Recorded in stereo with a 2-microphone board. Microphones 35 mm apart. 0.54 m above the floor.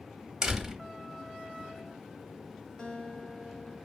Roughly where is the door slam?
Centre.